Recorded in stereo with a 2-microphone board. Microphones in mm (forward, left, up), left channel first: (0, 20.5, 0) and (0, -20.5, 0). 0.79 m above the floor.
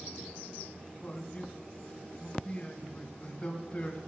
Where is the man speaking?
25° left (ahead or behind), 3.5 m.